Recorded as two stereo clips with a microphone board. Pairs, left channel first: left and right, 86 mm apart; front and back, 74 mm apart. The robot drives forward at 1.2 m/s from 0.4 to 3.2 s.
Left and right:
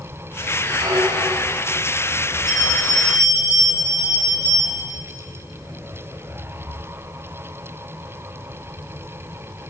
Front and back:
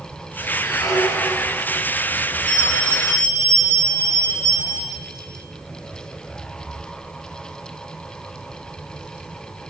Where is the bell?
125° right, 4 m; by 4.9 s 135° right, 4.5 m.